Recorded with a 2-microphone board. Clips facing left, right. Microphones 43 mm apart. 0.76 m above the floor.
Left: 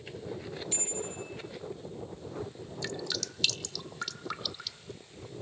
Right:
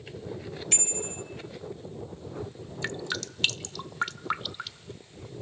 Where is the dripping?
35° right (ahead or behind), 0.8 m.